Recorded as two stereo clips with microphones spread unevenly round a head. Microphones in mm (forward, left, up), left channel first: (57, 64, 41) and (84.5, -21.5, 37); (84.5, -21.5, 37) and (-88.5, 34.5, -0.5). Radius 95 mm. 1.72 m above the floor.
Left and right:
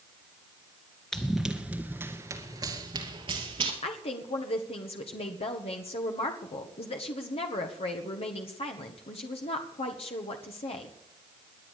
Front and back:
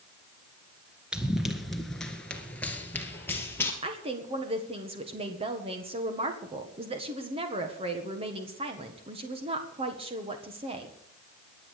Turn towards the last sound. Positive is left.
turn(degrees=100)